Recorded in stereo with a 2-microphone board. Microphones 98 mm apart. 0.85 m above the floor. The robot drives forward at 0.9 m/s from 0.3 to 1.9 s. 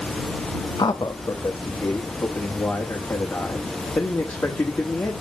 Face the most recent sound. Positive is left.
turn(degrees=20)  # may be behind; listen again after turning